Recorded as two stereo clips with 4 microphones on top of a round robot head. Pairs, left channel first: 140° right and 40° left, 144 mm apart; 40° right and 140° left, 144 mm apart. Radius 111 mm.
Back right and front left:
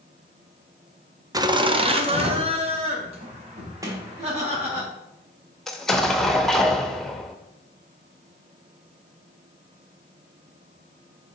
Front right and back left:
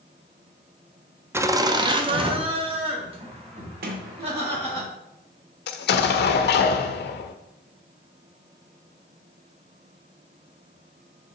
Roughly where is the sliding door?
Behind left.